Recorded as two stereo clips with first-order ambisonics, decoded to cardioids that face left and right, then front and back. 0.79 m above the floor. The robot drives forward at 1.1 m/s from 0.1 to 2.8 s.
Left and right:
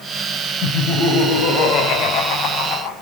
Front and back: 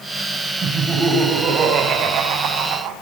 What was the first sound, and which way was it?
Laughter, 115° left.